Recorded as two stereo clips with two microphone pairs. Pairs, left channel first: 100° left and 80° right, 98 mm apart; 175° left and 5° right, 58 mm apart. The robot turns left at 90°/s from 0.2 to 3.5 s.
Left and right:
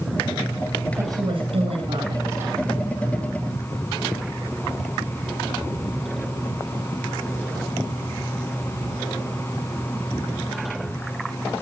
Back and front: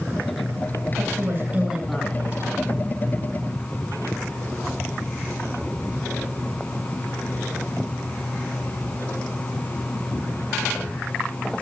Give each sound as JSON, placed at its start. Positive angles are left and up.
{"t": 1.0, "sound": "a woman speaking", "azimuth_deg": -15, "distance_m": 9.0}